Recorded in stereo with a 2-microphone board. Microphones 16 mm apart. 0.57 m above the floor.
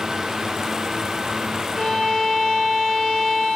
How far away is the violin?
About 3 m.